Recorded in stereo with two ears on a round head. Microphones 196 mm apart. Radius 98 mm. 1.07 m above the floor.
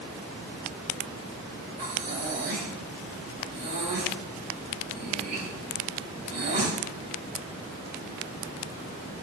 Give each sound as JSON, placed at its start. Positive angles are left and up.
{"t": 1.8, "sound": "breathing", "side_deg": -40, "distance_m": 5.0}